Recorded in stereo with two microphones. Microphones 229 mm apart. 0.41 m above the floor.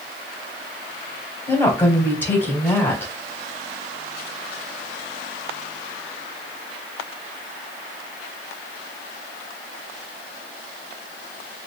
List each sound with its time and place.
1.5 s a woman speaking: 10° left (ahead or behind), 2.0 m